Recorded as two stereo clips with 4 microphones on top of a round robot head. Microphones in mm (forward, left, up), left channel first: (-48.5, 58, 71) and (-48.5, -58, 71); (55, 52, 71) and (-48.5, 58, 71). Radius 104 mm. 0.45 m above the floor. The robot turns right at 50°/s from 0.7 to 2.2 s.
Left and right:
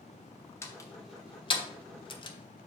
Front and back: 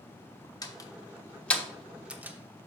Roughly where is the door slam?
Ahead left.